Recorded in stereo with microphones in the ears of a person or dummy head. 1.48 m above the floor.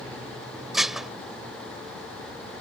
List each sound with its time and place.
0.7 s dishes clattering: centre (ahead or behind)